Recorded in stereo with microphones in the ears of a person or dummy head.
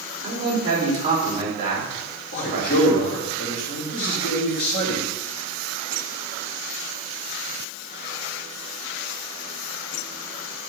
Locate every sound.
0.2 s a man speaking: 35° right (ahead or behind), 4 m
2.3 s a man speaking: 55° left (ahead or behind), 2.5 m